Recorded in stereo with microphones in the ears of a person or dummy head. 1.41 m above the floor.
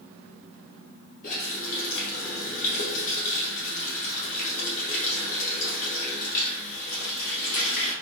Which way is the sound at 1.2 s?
55° left (ahead or behind).